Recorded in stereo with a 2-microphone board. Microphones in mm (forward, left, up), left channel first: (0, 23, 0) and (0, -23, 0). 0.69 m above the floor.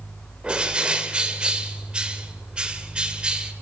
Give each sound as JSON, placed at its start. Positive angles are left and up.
{"t": 0.4, "sound": "a bird", "side_deg": -20, "distance_m": 1.8}